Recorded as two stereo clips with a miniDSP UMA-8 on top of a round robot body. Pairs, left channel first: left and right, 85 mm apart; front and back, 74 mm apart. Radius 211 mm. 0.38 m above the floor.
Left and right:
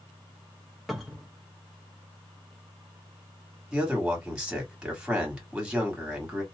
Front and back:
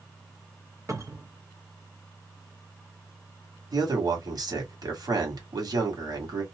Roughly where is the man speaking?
Behind.